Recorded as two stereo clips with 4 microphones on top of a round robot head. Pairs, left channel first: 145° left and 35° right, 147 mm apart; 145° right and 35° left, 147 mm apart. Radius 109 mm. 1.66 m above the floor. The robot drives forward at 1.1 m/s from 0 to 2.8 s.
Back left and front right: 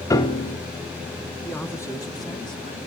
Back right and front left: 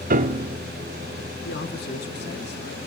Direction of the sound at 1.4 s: 135° right.